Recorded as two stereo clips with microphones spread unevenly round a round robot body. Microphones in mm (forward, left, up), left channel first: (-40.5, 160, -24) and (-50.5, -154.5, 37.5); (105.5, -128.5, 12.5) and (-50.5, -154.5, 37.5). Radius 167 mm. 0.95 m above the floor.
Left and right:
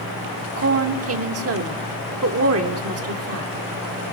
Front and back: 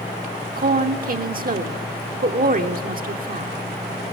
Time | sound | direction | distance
0.6 | a woman speaking | 140° right | 2.5 m